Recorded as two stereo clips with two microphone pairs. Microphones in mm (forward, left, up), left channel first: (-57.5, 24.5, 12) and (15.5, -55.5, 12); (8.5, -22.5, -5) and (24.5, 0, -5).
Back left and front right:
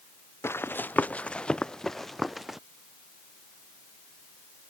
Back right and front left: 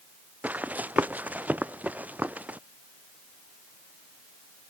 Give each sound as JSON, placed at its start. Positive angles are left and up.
{"t": 0.4, "sound": "running footsteps", "azimuth_deg": 65}